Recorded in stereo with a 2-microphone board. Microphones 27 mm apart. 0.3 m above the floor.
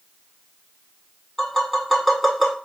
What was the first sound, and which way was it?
Tapping, 10° left (ahead or behind).